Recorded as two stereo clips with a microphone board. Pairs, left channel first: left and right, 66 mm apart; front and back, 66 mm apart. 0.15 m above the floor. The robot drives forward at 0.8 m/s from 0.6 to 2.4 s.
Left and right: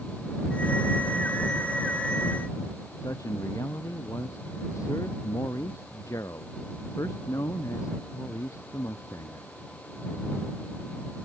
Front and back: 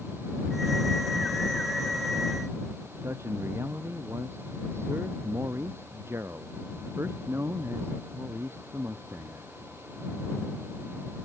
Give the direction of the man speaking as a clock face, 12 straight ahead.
8 o'clock.